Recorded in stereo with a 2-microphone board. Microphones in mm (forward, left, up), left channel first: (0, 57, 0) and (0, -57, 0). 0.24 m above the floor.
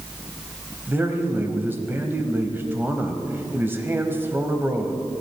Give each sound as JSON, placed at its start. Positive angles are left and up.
{"t": 0.9, "sound": "a man speaking", "side_deg": -20, "distance_m": 1.0}